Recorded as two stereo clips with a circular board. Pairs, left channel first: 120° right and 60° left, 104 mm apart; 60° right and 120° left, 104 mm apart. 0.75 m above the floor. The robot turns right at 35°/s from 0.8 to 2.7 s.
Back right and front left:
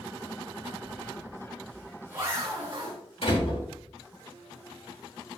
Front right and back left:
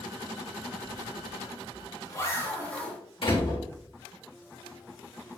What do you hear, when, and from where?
0.8 s a zipper: 50° right, 3 m; by 3.0 s 15° left, 3 m
3.2 s a door slam: 90° right, 3.5 m